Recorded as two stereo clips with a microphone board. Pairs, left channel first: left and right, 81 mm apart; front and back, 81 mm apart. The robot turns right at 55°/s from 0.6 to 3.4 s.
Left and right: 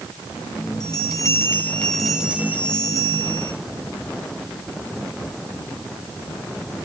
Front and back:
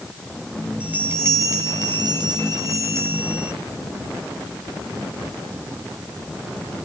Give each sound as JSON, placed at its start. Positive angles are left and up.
{"t": 0.8, "sound": "a bell", "azimuth_deg": 110, "distance_m": 2.5}